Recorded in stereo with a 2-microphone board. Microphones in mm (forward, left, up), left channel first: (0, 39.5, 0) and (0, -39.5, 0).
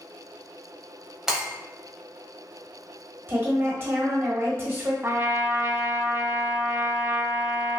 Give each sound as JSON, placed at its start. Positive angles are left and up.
{"t": 1.3, "sound": "breaking glass", "side_deg": -5, "distance_m": 0.9}
{"t": 3.3, "sound": "a woman speaking", "side_deg": -35, "distance_m": 1.0}
{"t": 5.0, "sound": "a trumpet", "side_deg": -35, "distance_m": 0.5}